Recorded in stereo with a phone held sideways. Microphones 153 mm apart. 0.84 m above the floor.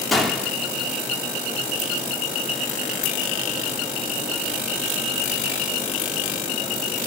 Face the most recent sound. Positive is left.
turn(degrees=0)  # may be behind; listen again after turning